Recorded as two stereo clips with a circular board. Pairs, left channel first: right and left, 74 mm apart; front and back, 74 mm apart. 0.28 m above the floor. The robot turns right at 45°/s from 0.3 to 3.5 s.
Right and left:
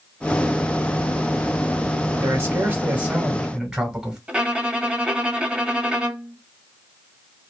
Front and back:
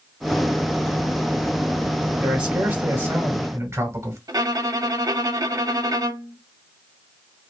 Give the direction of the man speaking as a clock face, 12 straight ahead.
9 o'clock.